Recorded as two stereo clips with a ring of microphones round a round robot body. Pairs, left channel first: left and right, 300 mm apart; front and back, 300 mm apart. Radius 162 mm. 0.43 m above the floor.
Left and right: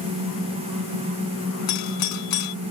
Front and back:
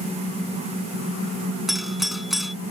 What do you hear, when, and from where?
1.7 s a doorbell: 90° left